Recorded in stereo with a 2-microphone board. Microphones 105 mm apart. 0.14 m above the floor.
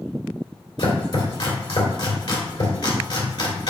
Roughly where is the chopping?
Left.